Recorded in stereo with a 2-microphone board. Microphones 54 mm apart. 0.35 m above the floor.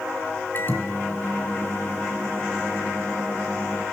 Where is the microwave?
40° left (ahead or behind), 3 m.